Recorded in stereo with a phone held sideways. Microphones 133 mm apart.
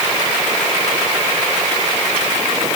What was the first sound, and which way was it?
Only background noise.